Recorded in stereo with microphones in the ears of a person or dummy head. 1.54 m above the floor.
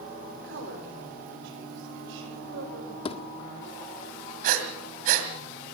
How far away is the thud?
About 1.4 m.